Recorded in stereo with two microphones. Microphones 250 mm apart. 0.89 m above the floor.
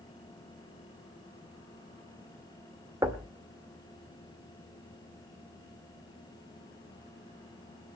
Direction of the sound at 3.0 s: 15° right (ahead or behind).